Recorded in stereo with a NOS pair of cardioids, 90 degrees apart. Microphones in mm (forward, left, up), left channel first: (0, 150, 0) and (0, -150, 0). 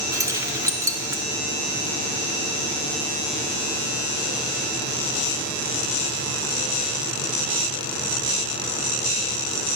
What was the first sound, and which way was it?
Keys jangling, 10° right.